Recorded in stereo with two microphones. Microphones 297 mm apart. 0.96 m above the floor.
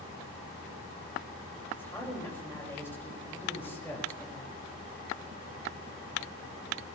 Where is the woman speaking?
5° left (ahead or behind), 5.5 m.